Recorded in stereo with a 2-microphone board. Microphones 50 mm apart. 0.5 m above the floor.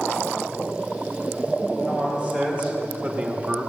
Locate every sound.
1.8 s a man speaking: 20° right (ahead or behind), 3 m; by 3.7 s 30° right (ahead or behind), 1.3 m